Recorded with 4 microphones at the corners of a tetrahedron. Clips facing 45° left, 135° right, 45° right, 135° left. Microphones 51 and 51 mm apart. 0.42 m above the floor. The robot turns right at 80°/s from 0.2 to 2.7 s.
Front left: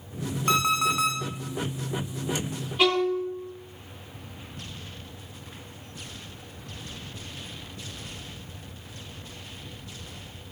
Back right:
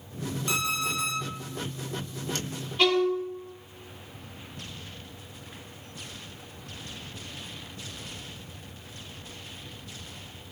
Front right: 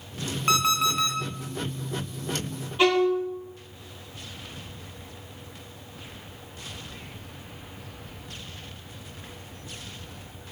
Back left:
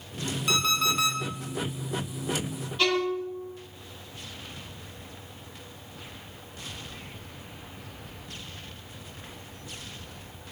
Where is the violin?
20° right, 1.3 m.